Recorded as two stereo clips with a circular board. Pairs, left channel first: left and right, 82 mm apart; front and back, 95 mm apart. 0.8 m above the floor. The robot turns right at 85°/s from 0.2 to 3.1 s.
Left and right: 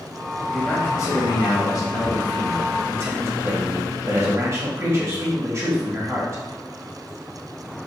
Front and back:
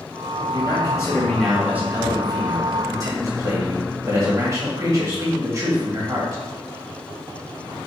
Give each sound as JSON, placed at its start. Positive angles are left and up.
{"t": 0.5, "sound": "a man speaking", "azimuth_deg": 10, "distance_m": 1.6}